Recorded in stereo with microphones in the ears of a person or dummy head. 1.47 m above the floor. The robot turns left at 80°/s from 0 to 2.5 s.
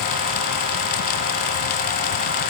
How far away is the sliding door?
No sliding door in this recording.